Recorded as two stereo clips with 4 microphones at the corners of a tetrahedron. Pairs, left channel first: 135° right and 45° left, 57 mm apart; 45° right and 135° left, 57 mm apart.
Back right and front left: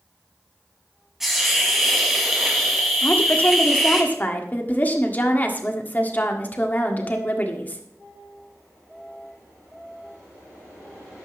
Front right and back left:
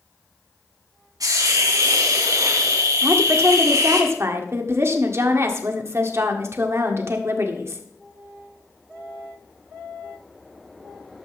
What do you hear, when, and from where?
1.2 s a hiss: 130° left, 3 m
3.0 s a woman speaking: 170° left, 1.6 m